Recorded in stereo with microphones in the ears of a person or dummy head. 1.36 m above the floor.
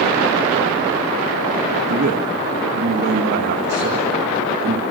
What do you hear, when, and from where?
1.9 s a man speaking: 55° right (ahead or behind), 1.9 m